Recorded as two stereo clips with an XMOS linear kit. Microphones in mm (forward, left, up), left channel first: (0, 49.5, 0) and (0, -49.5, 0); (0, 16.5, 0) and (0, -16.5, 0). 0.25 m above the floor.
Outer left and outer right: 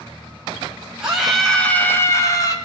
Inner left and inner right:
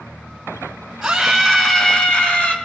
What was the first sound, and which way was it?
A scream, 10° right (ahead or behind).